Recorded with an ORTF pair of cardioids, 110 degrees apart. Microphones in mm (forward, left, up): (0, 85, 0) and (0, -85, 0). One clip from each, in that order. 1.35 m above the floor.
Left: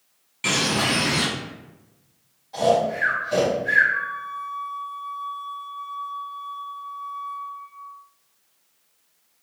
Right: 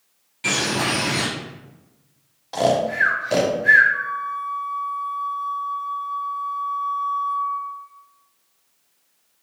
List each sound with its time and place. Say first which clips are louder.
0.4 s a bird: even; 20° left, 1.1 m
2.5 s snoring: right 1 dB; 70° right, 0.7 m
3.9 s a flute: right 2 dB; 5° right, 1.3 m